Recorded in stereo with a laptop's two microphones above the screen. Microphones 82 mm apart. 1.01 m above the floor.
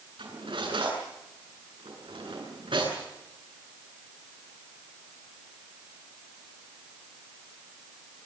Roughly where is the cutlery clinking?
Right.